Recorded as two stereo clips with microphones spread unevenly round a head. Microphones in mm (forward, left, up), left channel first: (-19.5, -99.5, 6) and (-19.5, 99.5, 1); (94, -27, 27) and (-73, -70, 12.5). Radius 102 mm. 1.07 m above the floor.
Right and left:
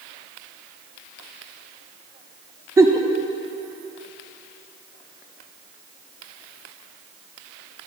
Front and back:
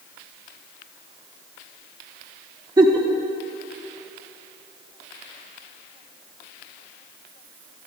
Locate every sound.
2.8 s a giggle: 150° left, 0.6 m